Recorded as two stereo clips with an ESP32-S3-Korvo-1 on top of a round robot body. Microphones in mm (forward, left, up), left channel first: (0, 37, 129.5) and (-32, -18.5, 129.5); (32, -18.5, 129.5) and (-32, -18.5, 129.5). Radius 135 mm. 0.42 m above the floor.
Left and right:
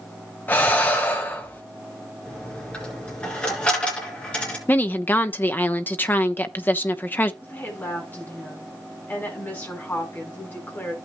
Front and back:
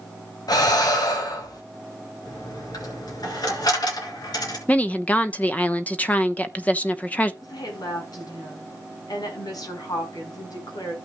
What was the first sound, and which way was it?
Breathing, straight ahead.